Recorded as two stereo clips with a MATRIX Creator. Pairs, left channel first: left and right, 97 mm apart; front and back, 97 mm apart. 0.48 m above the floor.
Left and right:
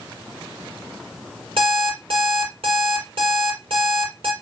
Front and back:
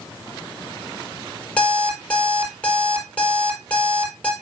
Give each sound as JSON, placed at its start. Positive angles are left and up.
{"t": 1.6, "sound": "an alarm clock", "azimuth_deg": -75, "distance_m": 5.0}